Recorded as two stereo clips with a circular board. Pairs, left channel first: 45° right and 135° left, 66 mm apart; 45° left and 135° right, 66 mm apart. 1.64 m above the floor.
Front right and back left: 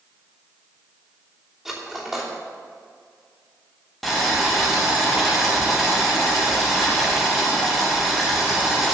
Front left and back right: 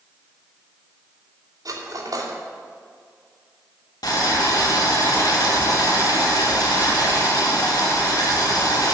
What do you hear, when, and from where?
1.6 s cutlery clinking: 145° right, 2.5 m
4.0 s boiling: 45° left, 2.5 m